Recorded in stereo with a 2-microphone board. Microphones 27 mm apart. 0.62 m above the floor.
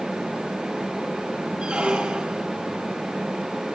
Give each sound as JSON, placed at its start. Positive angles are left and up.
{"t": 1.6, "sound": "a squeak", "side_deg": -45, "distance_m": 2.0}